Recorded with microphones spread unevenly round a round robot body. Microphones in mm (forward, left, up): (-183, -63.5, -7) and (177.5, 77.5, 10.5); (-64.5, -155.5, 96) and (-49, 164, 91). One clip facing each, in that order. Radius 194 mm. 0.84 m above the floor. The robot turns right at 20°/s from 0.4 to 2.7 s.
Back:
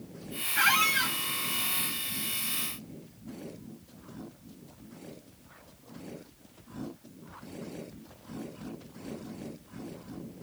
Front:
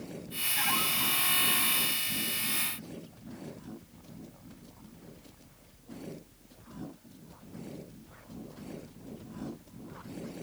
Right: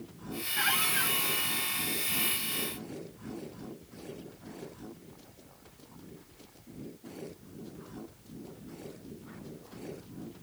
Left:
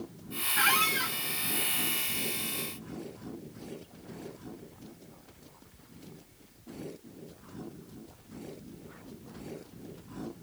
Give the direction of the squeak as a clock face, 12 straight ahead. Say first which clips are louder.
Front 2 dB, left 3 dB; 7 o'clock.